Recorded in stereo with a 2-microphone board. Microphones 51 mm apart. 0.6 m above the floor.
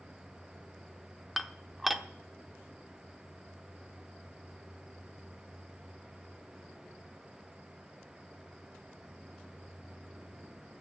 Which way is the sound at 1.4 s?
Centre (ahead or behind).